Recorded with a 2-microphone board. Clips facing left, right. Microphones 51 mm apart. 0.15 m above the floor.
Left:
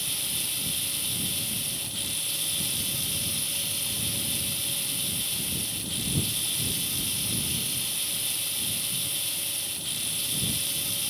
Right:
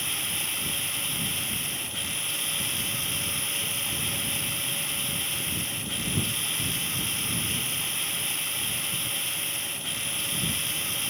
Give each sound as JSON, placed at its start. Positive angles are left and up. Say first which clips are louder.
{"t": 0.0, "sound": "running water", "louder": "right 3 dB", "side_deg": -35}